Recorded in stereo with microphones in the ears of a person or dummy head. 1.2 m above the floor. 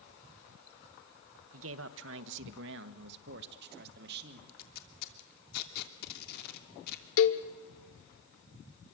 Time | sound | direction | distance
1.5 | a man speaking | 75° right (ahead or behind) | 0.8 m
4.5 | tape being pulled | 55° left (ahead or behind) | 3 m
7.2 | a cowbell | 70° left (ahead or behind) | 1.6 m